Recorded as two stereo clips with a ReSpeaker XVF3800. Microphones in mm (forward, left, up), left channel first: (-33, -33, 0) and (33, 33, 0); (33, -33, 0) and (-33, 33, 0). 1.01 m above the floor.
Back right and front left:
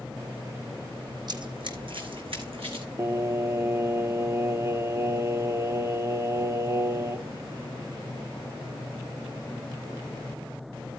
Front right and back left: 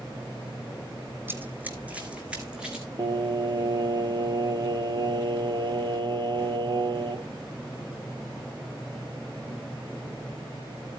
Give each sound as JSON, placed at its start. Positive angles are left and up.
{"t": 1.3, "sound": "running footsteps", "azimuth_deg": 70, "distance_m": 2.0}
{"t": 3.0, "sound": "singing", "azimuth_deg": 100, "distance_m": 0.7}